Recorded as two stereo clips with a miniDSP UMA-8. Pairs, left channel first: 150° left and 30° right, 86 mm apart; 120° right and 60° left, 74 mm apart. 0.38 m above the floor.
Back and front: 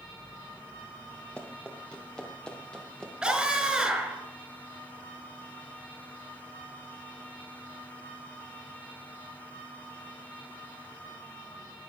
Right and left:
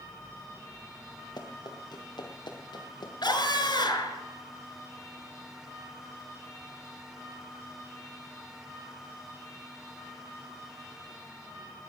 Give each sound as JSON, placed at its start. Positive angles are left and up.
{"t": 1.4, "sound": "running footsteps", "azimuth_deg": -135, "distance_m": 3.0}
{"t": 3.2, "sound": "a scream", "azimuth_deg": -110, "distance_m": 4.5}